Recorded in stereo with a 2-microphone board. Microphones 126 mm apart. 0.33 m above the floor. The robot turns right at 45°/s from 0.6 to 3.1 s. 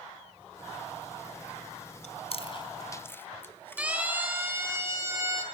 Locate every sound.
2.0 s chewing: 60° left (ahead or behind), 1.1 m; by 3.9 s 15° left (ahead or behind), 1.1 m
3.8 s a siren: 10° right (ahead or behind), 3 m; by 5.4 s 25° right (ahead or behind), 4 m